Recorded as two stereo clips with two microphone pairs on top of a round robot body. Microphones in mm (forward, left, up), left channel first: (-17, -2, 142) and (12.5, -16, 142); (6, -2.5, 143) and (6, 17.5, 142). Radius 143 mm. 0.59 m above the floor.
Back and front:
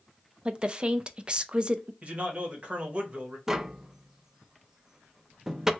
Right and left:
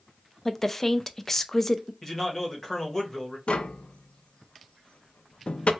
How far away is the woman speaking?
About 0.6 m.